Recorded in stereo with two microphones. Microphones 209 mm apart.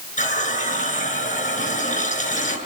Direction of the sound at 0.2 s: 40° left (ahead or behind).